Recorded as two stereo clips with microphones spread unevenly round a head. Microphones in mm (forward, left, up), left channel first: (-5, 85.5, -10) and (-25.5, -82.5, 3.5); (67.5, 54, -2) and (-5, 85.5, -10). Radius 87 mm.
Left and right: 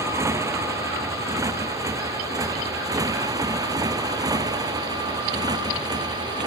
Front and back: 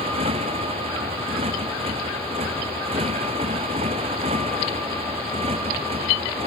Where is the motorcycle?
170° right; by 6.5 s 165° right.